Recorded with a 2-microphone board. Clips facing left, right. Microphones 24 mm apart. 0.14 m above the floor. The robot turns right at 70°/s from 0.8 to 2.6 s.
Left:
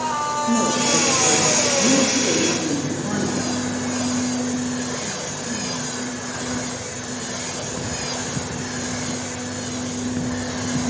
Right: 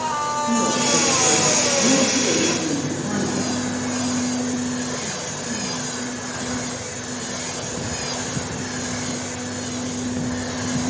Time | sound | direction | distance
0.5 | a woman speaking | 35° left | 5.5 m